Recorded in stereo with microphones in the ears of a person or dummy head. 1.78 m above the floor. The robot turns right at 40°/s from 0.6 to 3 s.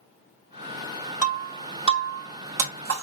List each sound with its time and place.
1.2 s breaking glass: 10° right (ahead or behind), 1.6 m; by 3.0 s 50° right (ahead or behind), 1.6 m